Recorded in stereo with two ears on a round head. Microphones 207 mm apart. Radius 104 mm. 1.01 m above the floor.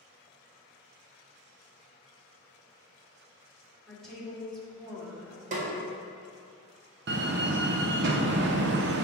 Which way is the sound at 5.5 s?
35° right (ahead or behind).